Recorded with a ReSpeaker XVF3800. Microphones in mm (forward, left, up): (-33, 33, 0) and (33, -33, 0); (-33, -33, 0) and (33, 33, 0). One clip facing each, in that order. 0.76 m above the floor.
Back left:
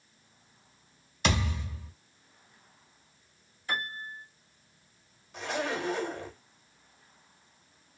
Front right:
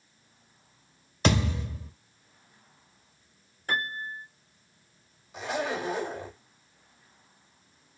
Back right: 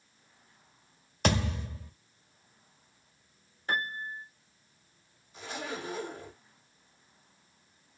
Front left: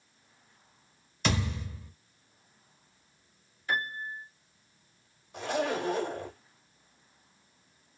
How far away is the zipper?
About 1.0 m.